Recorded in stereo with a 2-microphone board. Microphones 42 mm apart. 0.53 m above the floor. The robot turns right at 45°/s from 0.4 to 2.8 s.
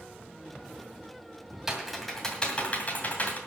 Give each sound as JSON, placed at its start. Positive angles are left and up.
{"t": 1.7, "sound": "typing on a keyboard", "side_deg": -10, "distance_m": 2.0}